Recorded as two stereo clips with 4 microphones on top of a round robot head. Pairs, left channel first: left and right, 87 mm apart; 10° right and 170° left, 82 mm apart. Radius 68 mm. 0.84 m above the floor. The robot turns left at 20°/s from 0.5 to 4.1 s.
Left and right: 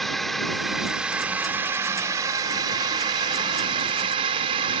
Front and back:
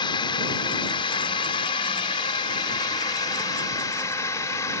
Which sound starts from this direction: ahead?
A drone, at 0.0 s.